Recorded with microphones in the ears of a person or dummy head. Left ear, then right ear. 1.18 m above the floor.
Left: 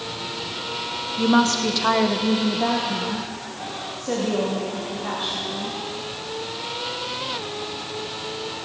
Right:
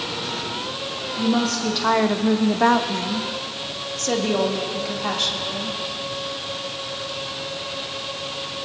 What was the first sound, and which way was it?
A woman speaking, 40° left (ahead or behind).